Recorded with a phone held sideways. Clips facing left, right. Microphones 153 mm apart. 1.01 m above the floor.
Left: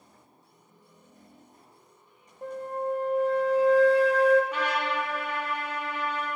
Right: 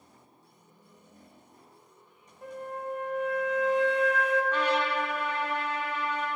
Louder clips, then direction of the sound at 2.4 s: Left 5 dB; 35° left (ahead or behind).